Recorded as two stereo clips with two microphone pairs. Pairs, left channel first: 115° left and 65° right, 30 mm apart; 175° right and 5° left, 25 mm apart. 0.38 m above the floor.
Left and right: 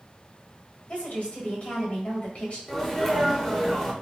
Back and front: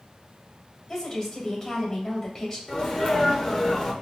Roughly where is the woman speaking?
Behind left.